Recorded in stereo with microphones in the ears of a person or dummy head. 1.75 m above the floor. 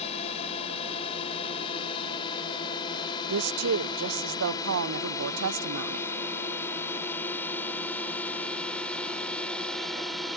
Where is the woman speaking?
75° right (ahead or behind).